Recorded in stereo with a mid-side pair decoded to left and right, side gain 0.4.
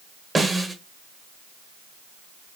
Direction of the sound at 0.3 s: 25° right.